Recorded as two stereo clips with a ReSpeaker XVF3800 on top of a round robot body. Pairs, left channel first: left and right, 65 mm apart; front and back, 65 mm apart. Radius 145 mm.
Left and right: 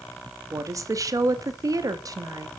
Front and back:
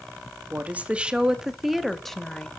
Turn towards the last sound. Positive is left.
turn(degrees=-75)